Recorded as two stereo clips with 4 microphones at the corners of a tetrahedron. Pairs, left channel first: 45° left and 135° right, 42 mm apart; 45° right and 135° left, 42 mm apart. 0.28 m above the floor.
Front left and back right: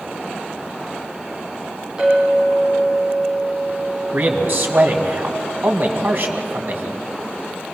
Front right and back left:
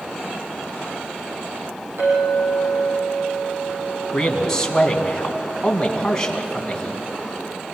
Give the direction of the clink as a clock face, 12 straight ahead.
7 o'clock.